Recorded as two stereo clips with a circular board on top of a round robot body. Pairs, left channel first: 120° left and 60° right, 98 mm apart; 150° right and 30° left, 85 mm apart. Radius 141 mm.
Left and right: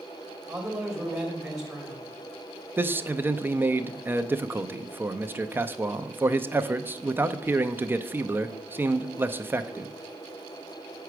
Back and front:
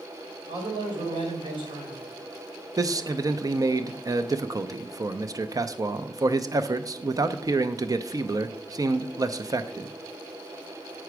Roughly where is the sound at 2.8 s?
Ahead.